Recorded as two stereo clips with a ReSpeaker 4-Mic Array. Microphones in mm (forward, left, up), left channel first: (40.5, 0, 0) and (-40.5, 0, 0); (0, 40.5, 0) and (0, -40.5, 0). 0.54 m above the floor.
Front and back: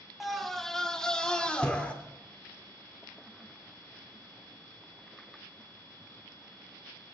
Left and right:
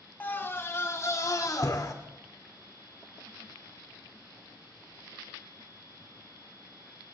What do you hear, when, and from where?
0.2 s a scream: 90° left, 1.3 m; by 1.9 s 70° left, 2.0 m